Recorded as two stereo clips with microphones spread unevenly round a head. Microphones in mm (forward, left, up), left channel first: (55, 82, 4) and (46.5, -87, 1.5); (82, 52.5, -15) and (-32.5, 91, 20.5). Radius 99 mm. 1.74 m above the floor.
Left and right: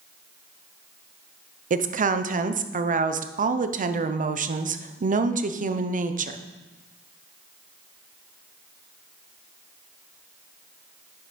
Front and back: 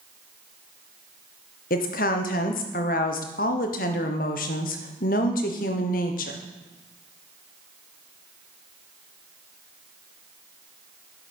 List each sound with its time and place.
1.7 s a woman speaking: 50° right, 1.0 m